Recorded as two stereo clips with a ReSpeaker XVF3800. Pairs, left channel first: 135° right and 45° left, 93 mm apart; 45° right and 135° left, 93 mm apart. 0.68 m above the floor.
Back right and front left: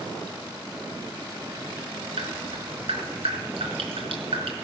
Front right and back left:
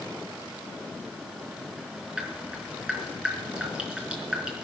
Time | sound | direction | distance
2.2 | dripping | 55° left | 4.5 m